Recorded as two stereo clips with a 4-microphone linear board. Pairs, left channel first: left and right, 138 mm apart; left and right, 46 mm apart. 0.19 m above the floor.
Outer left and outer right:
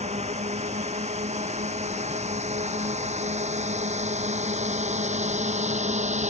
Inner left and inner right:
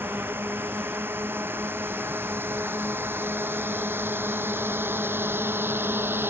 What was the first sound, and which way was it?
A drone, 55° right (ahead or behind).